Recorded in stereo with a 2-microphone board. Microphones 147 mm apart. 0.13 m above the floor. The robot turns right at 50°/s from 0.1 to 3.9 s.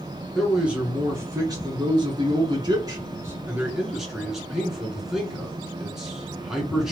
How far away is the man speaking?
About 1.9 m.